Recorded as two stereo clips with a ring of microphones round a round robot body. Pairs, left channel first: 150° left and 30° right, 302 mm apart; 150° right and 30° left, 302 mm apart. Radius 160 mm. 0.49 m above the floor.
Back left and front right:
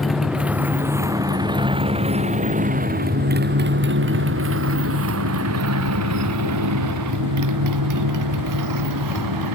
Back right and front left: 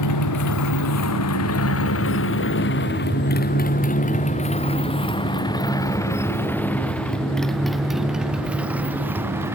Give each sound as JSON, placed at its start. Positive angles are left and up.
{"t": 0.0, "sound": "a motorcycle", "azimuth_deg": -120}